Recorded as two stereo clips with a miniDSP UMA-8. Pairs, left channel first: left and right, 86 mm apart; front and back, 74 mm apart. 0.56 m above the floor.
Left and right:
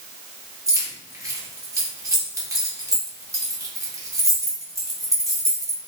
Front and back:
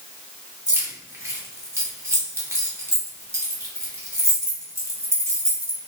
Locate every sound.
0.7 s keys jangling: 135° right, 0.9 m